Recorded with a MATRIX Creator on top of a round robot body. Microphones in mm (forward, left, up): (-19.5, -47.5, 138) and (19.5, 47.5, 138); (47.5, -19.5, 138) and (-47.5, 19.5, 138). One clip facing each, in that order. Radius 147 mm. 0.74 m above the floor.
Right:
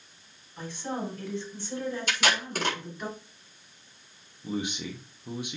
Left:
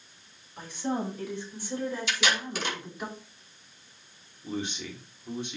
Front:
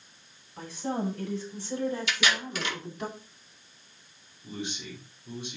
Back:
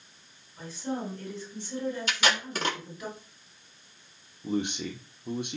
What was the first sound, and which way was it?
A woman speaking, 5° right.